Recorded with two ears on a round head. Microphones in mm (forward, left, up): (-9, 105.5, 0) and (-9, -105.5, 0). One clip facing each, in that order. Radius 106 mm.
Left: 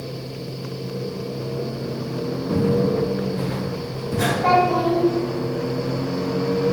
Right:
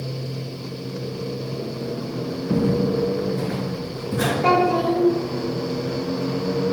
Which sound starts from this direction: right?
A child speaking, at 4.4 s.